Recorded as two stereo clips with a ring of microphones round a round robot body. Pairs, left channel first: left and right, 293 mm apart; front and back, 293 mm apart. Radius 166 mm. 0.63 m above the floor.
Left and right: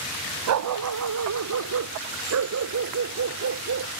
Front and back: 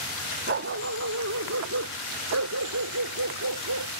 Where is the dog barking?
120° right; by 4.0 s 130° right.